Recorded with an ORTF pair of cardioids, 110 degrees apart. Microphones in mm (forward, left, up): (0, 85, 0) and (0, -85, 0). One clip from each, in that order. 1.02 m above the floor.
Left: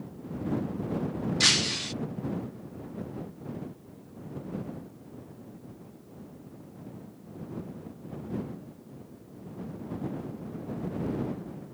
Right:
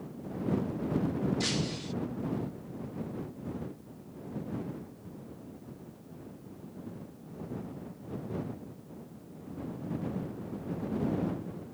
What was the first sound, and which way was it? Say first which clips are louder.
Breaking glass: left 10 dB; 65° left.